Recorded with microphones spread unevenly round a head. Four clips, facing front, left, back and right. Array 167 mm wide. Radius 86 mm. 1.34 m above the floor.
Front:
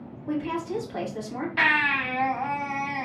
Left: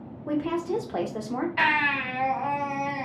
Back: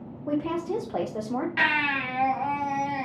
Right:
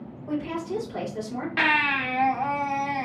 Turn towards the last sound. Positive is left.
turn(degrees=-125)